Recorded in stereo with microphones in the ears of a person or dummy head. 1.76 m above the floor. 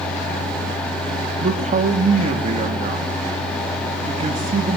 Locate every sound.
0.0 s a fan: 5° left (ahead or behind), 3 m
1.4 s a man speaking: 30° right (ahead or behind), 1.4 m